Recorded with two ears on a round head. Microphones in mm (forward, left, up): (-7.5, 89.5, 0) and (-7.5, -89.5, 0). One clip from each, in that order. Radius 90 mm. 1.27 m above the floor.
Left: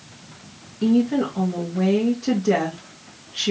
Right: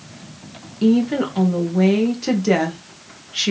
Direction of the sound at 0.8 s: 40° right (ahead or behind).